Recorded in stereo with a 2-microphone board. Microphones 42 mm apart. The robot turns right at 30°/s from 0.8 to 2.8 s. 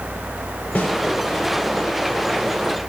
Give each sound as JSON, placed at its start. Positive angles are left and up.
{"t": 0.8, "sound": "a snare drum", "side_deg": 50, "distance_m": 4.5}